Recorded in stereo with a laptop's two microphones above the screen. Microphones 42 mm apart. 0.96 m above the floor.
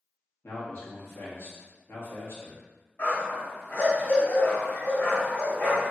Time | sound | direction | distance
0.4 | a man speaking | 75° left (ahead or behind) | 1.3 m
3.0 | a dog barking | 50° left (ahead or behind) | 1.8 m